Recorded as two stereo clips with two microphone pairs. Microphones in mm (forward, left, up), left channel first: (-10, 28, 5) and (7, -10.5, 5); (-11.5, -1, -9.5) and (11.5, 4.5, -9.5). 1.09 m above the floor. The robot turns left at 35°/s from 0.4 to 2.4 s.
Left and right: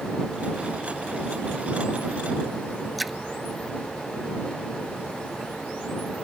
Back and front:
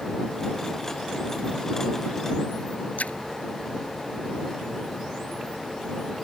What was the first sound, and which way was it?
A splash, 155° right.